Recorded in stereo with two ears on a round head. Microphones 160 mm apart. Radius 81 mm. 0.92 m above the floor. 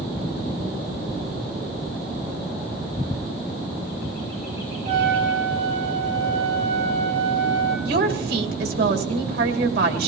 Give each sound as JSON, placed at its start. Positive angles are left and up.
{"t": 4.8, "sound": "a trumpet", "side_deg": -40, "distance_m": 6.5}
{"t": 7.8, "sound": "a woman speaking", "side_deg": -55, "distance_m": 2.5}